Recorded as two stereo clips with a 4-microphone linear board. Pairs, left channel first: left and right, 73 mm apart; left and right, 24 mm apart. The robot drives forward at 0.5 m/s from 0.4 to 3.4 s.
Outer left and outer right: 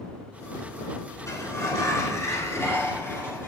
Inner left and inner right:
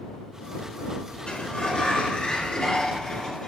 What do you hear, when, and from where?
1.3 s a sliding door: 40° left (ahead or behind), 2.5 m; by 3.5 s 30° left (ahead or behind), 3.5 m